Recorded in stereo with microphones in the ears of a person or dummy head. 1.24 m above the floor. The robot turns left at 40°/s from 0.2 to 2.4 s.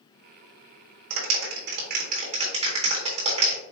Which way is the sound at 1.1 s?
80° right.